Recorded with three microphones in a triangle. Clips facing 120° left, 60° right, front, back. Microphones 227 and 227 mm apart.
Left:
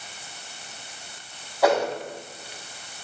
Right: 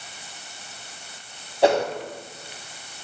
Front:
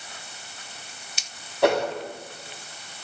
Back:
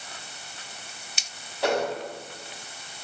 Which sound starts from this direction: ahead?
A whoosh, at 1.6 s.